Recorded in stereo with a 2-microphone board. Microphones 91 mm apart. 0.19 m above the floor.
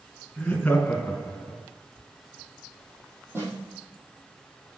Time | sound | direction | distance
0.4 | laughter | 10° left (ahead or behind) | 2.5 m
3.3 | a snare drum | 25° right (ahead or behind) | 3.5 m